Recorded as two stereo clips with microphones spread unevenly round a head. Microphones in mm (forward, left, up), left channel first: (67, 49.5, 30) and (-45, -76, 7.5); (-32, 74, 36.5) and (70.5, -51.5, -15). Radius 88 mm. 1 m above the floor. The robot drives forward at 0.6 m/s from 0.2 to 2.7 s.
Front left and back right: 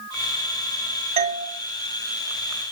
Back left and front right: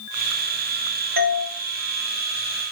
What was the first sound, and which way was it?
A doorbell, 80° right.